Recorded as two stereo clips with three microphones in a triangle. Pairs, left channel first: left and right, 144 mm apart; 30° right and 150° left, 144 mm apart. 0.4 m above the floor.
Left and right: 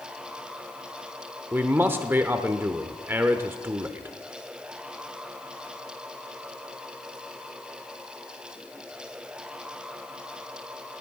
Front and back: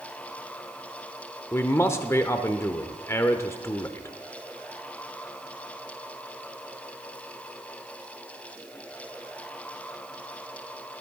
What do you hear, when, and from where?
1.5 s a man speaking: 50° right, 0.8 m